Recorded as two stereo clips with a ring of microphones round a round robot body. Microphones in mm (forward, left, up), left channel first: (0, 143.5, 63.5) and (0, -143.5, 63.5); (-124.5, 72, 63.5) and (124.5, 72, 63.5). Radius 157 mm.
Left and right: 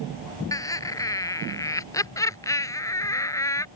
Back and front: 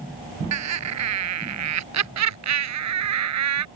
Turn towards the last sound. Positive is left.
turn(degrees=10)